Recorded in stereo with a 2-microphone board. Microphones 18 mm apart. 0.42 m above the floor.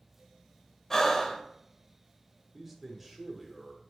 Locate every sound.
0.9 s breathing: 25° left (ahead or behind), 0.5 m
2.5 s a man speaking: 10° right (ahead or behind), 0.8 m